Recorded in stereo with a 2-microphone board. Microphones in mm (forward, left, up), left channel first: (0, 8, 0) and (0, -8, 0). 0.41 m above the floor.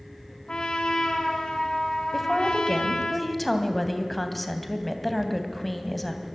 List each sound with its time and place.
0.5 s a trumpet: 70° left (ahead or behind), 3.5 m
2.1 s a woman speaking: 5° left (ahead or behind), 3 m